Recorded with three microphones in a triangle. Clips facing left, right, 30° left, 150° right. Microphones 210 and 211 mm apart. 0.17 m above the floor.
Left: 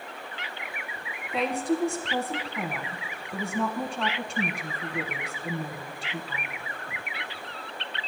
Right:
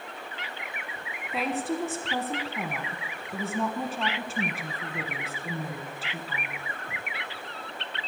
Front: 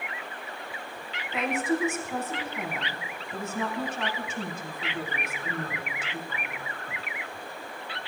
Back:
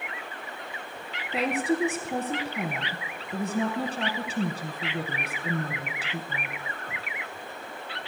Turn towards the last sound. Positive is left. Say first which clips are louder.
# left 3 dB, back 2 dB
turn(degrees=-175)